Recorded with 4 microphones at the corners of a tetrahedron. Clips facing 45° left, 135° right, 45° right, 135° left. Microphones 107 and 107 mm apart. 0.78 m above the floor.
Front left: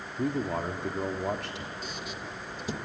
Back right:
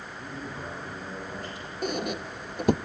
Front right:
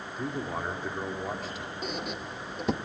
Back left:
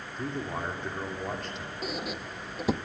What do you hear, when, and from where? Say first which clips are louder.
0.2 s a man speaking: front left 11 dB, even; 40° left, 2.0 m
1.8 s a squeak: back right 8 dB, back left 1 dB; 140° right, 0.6 m